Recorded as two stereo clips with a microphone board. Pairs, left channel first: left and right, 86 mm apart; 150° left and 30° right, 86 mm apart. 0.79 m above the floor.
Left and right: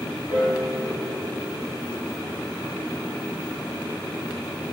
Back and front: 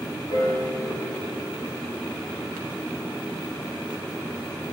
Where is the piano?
145° left, 2 m.